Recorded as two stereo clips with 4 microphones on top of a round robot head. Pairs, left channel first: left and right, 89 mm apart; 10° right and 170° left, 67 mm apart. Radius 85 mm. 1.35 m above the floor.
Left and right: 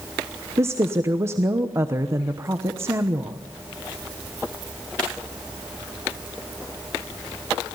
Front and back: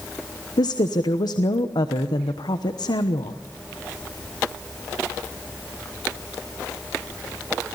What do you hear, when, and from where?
0.6 s a woman speaking: 25° right, 1.0 m